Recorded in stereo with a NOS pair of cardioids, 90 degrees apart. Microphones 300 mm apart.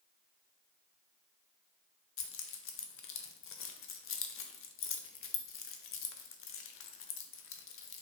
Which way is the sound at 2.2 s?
45° left.